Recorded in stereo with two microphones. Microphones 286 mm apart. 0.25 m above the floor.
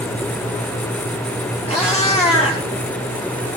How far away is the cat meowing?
About 4 m.